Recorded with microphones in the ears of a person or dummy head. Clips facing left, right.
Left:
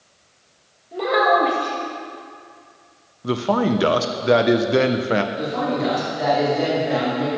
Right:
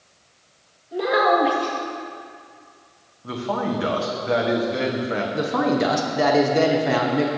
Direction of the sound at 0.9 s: 5° left (ahead or behind).